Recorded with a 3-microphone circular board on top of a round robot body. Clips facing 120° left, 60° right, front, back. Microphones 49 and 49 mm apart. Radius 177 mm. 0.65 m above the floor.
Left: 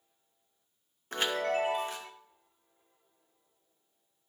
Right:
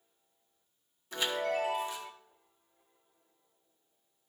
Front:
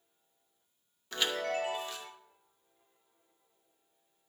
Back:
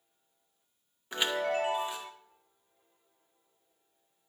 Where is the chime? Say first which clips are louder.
Left 2 dB, back 3 dB; 115° left, 1.5 m.